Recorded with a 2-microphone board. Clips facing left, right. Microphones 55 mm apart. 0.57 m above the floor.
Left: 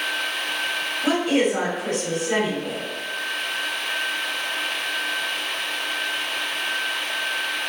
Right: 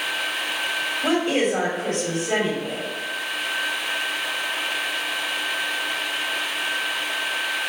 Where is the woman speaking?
35° right (ahead or behind), 1.9 m.